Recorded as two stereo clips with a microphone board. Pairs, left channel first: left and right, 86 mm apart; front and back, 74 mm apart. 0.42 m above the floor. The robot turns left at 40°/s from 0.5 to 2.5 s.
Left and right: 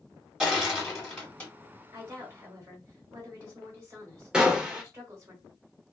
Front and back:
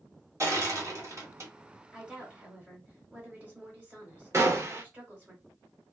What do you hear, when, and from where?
0.4 s crushing: 165° right, 1.7 m; by 1.5 s 155° left, 1.7 m
1.9 s a woman speaking: 100° right, 1.6 m; by 5.3 s 120° right, 1.6 m
4.3 s a gunshot: 165° right, 0.7 m